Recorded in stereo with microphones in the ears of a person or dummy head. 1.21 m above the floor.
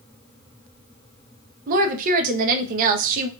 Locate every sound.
1.7 s a woman speaking: 45° right (ahead or behind), 0.5 m